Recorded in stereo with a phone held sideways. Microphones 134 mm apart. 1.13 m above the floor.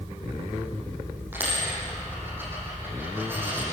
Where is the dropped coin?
15° right (ahead or behind), 9.5 m.